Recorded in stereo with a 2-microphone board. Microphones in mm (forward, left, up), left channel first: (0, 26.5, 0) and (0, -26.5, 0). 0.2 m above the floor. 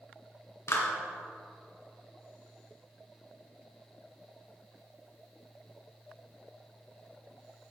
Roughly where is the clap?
Left.